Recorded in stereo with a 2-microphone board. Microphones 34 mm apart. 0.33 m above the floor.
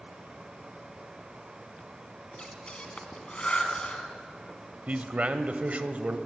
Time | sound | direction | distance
2.3 | breathing | 30° left (ahead or behind) | 1.8 m
4.9 | a man speaking | 45° right (ahead or behind) | 1.2 m